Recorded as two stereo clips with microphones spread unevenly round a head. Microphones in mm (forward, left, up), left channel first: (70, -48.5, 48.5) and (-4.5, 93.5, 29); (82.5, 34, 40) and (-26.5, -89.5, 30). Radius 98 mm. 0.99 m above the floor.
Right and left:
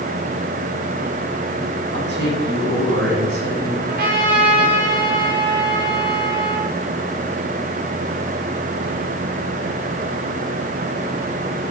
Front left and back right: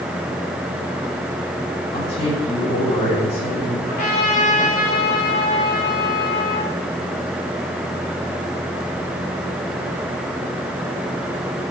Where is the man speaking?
110° left, 4 m.